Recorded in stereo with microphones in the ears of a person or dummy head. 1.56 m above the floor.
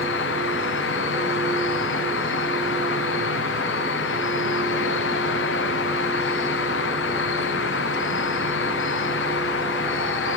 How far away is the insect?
About 0.9 m.